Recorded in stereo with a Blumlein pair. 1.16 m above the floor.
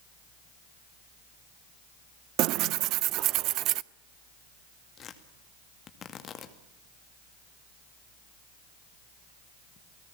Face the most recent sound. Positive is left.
turn(degrees=25)